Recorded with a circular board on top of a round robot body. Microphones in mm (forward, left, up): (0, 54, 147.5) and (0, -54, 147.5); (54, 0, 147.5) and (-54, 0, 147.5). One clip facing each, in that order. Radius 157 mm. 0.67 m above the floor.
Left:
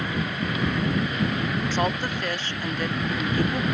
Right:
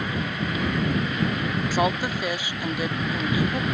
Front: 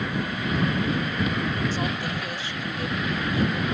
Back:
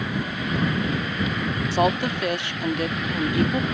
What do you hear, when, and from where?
1.7 s a woman speaking: 170° right